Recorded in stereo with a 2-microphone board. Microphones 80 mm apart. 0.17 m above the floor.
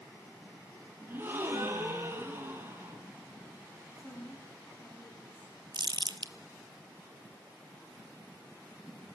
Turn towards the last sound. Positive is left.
turn(degrees=-70)  # may be behind; listen again after turning